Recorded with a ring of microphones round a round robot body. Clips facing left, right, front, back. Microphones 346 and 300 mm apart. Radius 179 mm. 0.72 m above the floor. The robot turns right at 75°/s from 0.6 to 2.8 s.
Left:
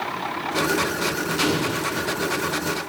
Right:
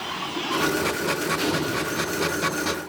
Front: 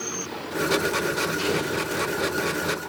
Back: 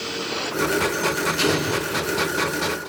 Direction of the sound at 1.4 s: 145° left.